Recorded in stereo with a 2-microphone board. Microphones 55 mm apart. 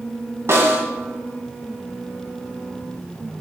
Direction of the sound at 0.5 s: 55° right (ahead or behind).